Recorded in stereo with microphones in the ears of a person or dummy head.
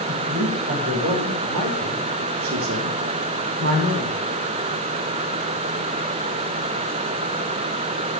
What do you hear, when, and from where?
0.1 s a man speaking: 65° right (ahead or behind), 6 m; by 4.2 s 45° right (ahead or behind), 5 m